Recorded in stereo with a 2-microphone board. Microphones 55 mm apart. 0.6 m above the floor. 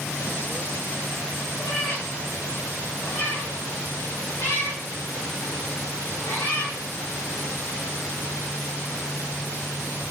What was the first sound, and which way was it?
A cat meowing, 65° left (ahead or behind).